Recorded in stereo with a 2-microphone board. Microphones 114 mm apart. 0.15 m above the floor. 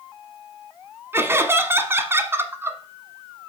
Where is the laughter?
20° right (ahead or behind), 1.1 m.